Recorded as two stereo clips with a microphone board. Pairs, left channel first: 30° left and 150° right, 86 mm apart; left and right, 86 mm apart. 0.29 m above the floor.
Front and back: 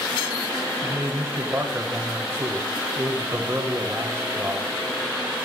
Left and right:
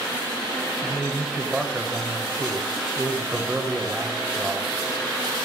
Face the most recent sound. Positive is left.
turn(degrees=-160)